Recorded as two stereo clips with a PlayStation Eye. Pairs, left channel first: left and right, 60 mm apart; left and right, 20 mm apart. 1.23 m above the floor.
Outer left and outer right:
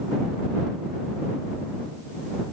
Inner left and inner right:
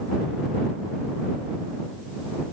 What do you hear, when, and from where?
Only background noise.